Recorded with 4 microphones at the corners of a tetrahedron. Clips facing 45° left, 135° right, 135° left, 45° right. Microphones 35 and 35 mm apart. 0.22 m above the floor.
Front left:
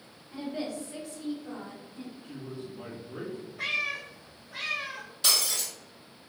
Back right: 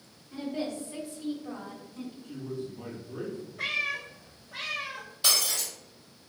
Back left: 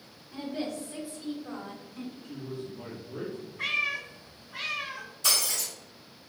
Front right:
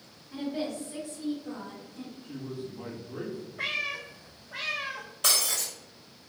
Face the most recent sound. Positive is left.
turn(degrees=-50)